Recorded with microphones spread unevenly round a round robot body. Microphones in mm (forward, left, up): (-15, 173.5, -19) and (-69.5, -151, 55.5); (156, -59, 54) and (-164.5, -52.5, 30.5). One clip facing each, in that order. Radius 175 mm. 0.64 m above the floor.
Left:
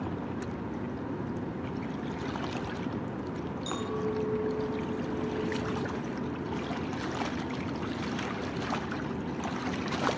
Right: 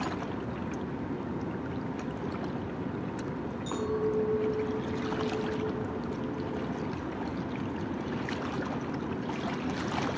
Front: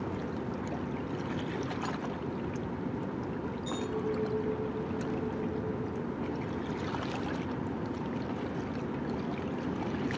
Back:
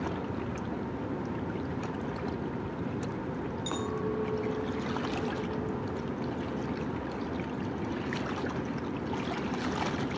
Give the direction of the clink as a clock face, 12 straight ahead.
8 o'clock.